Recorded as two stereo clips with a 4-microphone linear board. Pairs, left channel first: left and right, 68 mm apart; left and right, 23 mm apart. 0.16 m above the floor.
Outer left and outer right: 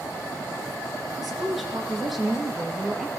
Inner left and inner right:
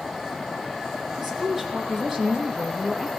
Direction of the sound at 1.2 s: Centre (ahead or behind).